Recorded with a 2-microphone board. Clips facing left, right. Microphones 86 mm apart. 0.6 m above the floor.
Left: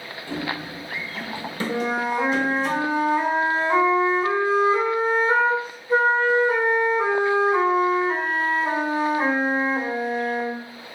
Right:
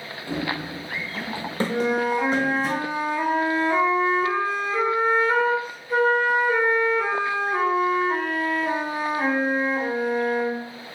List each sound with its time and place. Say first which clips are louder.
0.3 s running footsteps: right 1 dB; 10° right (ahead or behind), 0.7 m; by 2.7 s 40° right (ahead or behind), 1.2 m
1.7 s a flute: right 1 dB; 30° left (ahead or behind), 1.3 m